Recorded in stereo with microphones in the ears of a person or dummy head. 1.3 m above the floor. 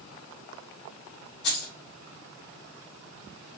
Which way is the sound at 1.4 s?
65° left (ahead or behind).